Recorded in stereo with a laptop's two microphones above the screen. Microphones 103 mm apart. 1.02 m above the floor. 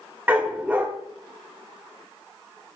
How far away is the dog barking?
About 1.0 m.